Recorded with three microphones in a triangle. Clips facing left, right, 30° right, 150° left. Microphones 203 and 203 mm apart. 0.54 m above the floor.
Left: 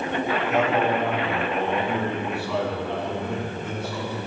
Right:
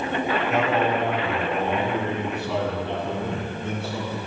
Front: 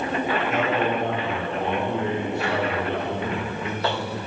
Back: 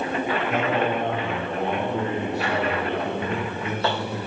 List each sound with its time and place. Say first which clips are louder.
0.5 s a man speaking: left 1 dB, back 1 dB; straight behind, 5 m; by 4.2 s 145° right, 6 m